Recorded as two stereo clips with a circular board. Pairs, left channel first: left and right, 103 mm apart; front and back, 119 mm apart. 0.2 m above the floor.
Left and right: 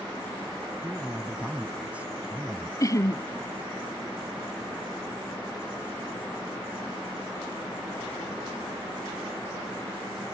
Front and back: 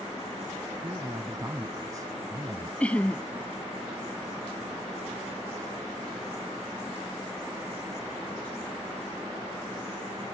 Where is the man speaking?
155° right.